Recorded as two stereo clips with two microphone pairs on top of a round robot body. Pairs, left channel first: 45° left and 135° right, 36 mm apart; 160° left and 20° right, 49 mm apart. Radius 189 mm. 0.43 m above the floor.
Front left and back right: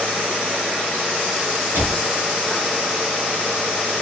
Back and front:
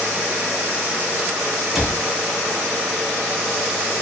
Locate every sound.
1.8 s a cupboard door: 105° right, 1.3 m